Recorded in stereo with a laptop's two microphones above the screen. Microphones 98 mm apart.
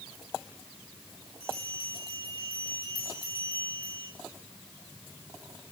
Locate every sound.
1.4 s a bell: 65° left (ahead or behind), 7.5 m